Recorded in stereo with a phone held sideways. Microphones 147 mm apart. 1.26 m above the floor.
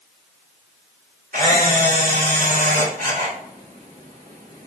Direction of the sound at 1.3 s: 80° right.